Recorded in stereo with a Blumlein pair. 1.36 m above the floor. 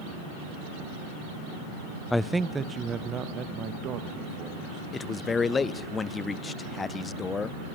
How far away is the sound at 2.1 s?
About 0.5 m.